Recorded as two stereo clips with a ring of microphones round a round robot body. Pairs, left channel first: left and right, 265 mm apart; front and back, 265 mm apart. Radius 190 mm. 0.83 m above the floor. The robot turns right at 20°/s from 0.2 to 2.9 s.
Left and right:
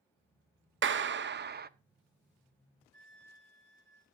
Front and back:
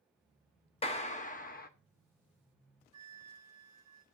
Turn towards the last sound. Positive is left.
turn(degrees=-155)